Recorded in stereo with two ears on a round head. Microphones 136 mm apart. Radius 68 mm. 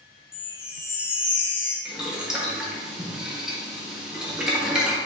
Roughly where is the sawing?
I don't hear sawing.